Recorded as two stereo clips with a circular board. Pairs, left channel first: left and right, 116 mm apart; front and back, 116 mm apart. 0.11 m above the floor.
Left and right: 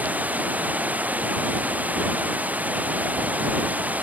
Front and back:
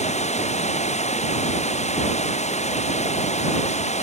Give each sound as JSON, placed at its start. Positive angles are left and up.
{"t": 0.0, "sound": "running water", "azimuth_deg": -15}